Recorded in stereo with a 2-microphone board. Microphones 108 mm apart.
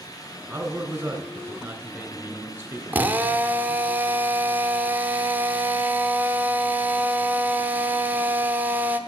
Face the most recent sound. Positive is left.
turn(degrees=-20)  # may be behind; listen again after turning